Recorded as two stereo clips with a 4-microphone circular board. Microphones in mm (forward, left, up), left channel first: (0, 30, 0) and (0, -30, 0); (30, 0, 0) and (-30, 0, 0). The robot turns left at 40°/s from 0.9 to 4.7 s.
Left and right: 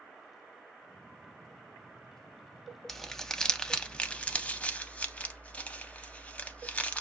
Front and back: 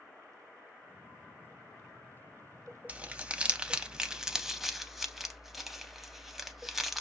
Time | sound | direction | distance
2.9 | crumpling | 170° left | 0.5 m